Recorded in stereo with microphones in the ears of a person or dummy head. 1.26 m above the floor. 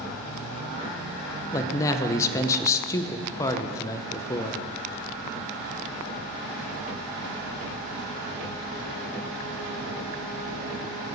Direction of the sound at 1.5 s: 25° left (ahead or behind).